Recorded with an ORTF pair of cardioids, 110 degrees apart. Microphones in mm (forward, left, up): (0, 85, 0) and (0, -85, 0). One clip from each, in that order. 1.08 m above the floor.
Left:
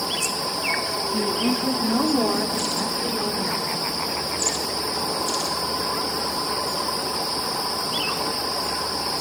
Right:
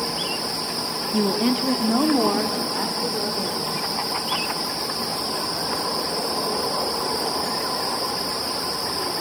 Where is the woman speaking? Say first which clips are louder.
Right 4 dB; 30° right, 1.9 m; by 3.9 s 15° right, 5 m.